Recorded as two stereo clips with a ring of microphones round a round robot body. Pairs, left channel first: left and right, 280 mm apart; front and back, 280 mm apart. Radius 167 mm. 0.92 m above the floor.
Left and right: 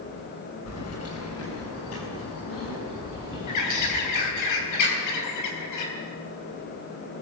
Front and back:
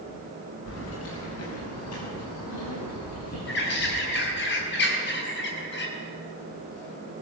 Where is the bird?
55° left, 3 m.